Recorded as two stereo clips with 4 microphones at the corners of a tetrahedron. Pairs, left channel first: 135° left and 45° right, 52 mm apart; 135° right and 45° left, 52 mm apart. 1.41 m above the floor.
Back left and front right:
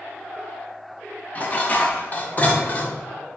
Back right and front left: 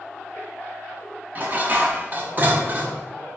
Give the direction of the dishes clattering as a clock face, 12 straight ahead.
9 o'clock.